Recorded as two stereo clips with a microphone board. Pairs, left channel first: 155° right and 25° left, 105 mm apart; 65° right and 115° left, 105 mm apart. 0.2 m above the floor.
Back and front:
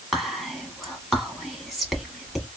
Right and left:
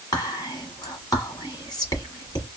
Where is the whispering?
65° right, 1.3 m.